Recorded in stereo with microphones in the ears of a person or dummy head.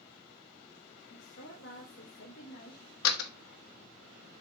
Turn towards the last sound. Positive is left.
turn(degrees=85)